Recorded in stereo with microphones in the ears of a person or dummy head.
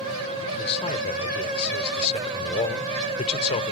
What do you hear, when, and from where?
0.5 s a man speaking: 35° left (ahead or behind)